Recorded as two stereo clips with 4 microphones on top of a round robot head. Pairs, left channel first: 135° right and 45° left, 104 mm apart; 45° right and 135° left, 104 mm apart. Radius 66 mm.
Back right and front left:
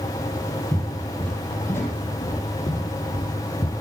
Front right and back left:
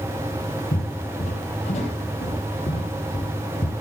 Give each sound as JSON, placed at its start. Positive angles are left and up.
{"t": 0.7, "sound": "footsteps", "azimuth_deg": -45, "distance_m": 2.0}